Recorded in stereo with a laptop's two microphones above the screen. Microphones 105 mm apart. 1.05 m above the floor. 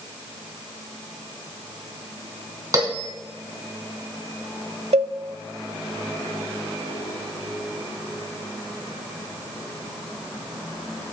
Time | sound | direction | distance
2.7 | a bell | 35° right (ahead or behind) | 3 m
4.9 | a cowbell | 85° right | 0.5 m